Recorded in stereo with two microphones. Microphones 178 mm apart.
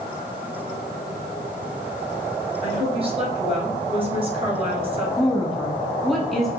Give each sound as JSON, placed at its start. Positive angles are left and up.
{"t": 2.6, "sound": "a woman speaking", "side_deg": -30, "distance_m": 1.8}
{"t": 5.2, "sound": "a woman speaking", "side_deg": 0, "distance_m": 1.1}